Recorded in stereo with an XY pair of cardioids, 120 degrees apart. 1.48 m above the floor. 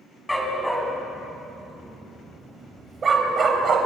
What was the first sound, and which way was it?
A dog barking, 5° left.